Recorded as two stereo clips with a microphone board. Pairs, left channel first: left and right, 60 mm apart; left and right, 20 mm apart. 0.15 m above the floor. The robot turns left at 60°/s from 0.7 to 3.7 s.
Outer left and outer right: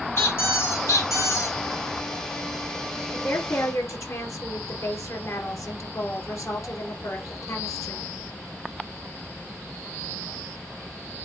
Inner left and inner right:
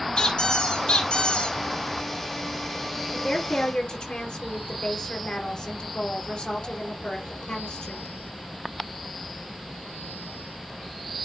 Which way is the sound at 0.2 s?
135° left.